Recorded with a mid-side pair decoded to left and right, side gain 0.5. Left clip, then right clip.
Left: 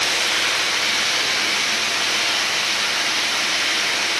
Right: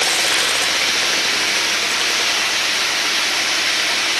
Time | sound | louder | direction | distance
0.0 | running water | right 3 dB | 65° right | 1.8 m